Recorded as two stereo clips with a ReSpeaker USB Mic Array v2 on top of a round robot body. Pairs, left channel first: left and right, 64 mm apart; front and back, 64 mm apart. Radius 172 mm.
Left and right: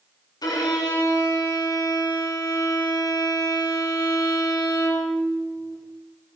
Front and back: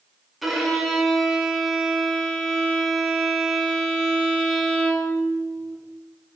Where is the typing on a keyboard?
No typing on a keyboard in this recording.